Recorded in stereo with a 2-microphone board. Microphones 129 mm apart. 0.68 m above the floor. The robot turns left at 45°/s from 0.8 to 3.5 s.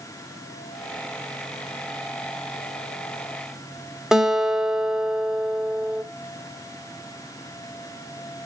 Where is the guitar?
5° right (ahead or behind), 1.3 m.